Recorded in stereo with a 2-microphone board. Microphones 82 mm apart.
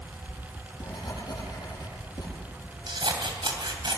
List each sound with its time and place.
0.3 s writing: 55° left (ahead or behind), 8 m
2.9 s scissors: 70° right (ahead or behind), 3 m